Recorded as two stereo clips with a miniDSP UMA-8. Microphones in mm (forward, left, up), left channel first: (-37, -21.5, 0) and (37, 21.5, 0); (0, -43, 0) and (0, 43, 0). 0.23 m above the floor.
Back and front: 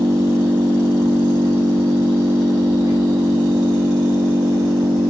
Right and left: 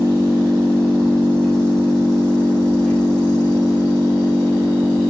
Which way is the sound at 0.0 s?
5° right.